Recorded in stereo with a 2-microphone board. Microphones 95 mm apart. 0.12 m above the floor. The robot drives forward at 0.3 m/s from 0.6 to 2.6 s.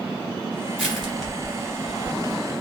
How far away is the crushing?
About 1.6 m.